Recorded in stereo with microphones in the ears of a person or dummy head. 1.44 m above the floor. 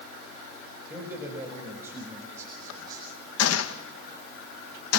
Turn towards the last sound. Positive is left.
turn(degrees=80)